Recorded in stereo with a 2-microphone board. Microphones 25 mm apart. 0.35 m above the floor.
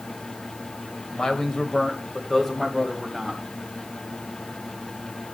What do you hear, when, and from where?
1.1 s a man speaking: 35° left (ahead or behind), 1.6 m; by 3.4 s 5° left (ahead or behind), 2 m